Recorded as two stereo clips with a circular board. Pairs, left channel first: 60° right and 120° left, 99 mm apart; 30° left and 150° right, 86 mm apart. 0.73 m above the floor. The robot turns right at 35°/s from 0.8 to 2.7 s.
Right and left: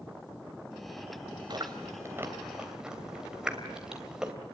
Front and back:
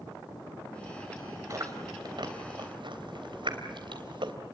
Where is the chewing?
160° left, 3 m; by 4.3 s 160° right, 3 m.